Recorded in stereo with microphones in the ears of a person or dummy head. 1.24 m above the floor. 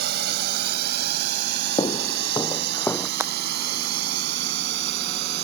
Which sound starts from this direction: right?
A drone, at 0.0 s.